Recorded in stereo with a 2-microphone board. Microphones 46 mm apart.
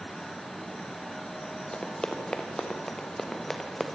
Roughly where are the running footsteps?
Left.